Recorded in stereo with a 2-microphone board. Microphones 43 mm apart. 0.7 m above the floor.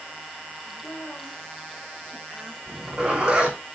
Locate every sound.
0.7 s a woman speaking: 15° left (ahead or behind), 4.5 m
2.7 s a zipper: 15° right (ahead or behind), 3 m